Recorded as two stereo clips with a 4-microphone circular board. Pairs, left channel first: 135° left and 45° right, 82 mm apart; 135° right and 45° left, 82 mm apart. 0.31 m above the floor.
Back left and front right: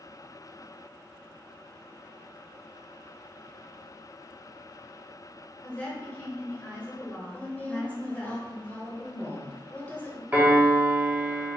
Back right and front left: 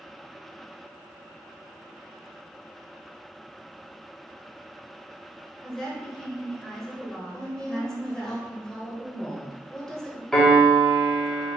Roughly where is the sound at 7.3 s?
Behind left.